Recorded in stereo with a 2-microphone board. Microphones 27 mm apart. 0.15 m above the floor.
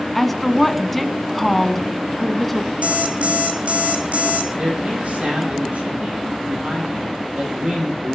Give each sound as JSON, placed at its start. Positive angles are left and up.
{"t": 0.1, "sound": "a woman speaking", "side_deg": 5, "distance_m": 1.2}
{"t": 2.8, "sound": "an alarm clock", "side_deg": -65, "distance_m": 3.0}
{"t": 4.6, "sound": "a man speaking", "side_deg": -70, "distance_m": 6.5}